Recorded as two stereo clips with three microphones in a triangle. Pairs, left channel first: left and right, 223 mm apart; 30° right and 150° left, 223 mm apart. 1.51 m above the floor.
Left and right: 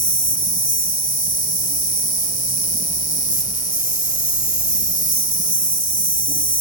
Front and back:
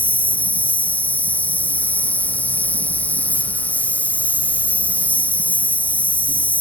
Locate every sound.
0.0 s an insect: 50° left